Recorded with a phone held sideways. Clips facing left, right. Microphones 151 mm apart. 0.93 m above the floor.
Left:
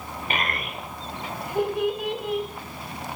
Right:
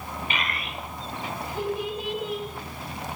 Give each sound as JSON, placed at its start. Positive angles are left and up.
{"t": 0.3, "sound": "a child speaking", "side_deg": 45, "distance_m": 2.0}